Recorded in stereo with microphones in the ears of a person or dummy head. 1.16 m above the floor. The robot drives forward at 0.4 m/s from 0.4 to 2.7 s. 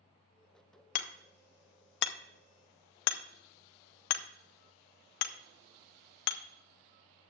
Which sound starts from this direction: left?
Hammering, at 0.9 s.